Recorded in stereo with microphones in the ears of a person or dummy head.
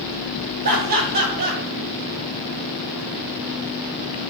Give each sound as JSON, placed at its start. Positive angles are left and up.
{"t": 0.6, "sound": "laughter", "side_deg": -45, "distance_m": 1.5}